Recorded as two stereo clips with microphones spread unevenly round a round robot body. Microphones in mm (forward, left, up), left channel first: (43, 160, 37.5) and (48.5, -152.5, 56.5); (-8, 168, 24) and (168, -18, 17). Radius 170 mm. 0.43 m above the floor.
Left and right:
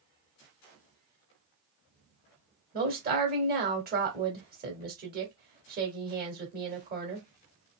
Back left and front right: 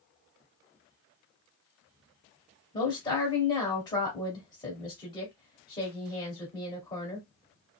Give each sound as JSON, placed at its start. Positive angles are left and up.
{"t": 2.7, "sound": "a woman speaking", "azimuth_deg": -150, "distance_m": 1.6}